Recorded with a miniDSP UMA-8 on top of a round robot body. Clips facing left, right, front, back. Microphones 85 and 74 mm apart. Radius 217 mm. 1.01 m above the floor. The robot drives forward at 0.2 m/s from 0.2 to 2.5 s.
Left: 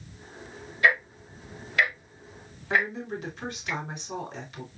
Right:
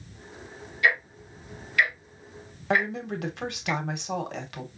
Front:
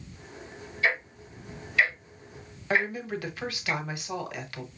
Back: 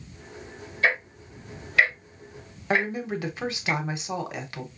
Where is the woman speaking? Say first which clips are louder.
Right 1 dB, back 2 dB; 115° right, 1.0 m.